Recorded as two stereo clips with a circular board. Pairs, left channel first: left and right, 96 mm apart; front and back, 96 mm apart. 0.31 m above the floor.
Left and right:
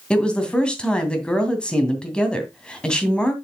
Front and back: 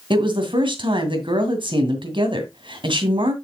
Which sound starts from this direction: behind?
A woman speaking, at 0.1 s.